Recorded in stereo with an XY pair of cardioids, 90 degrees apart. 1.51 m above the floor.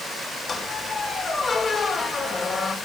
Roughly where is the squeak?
Ahead left.